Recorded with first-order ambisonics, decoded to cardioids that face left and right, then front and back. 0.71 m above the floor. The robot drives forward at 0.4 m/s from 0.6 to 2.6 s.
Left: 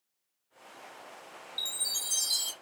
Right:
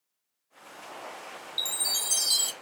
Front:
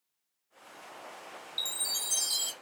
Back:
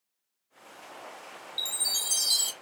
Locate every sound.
1.6 s a chime: 90° right, 0.5 m; by 2.5 s 150° right, 0.6 m